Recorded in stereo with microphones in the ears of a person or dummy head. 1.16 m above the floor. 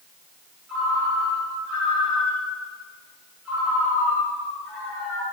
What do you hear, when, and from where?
0.7 s a ringtone: 5° right (ahead or behind), 3 m